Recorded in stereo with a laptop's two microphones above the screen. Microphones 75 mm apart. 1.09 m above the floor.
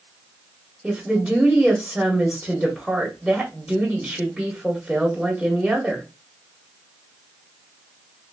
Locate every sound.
0.8 s a woman speaking: 5° right (ahead or behind), 1.5 m